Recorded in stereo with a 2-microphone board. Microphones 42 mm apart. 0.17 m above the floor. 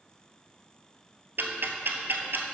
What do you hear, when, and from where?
1.4 s ticking: 60° right (ahead or behind), 1.0 m